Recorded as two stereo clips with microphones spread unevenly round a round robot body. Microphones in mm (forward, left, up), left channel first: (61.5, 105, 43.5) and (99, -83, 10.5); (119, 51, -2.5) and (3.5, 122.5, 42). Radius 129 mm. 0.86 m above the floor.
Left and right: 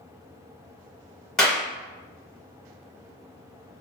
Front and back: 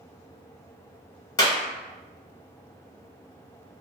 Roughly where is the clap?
Ahead.